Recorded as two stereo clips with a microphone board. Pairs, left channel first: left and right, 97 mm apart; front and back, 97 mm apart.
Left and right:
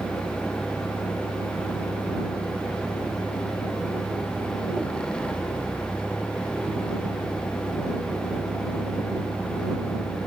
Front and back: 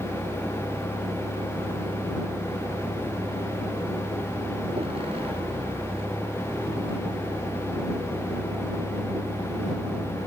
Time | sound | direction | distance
0.0 | a vehicle | 170° left | ?